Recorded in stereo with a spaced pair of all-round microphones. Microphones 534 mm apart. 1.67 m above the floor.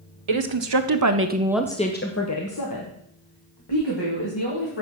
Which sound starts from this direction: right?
A woman speaking, at 0.3 s.